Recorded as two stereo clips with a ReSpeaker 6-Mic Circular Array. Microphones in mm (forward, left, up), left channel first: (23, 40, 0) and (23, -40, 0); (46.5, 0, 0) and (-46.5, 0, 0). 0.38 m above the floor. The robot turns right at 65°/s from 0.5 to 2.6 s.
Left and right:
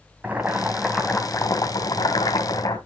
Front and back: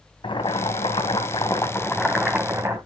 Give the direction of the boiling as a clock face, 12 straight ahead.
1 o'clock.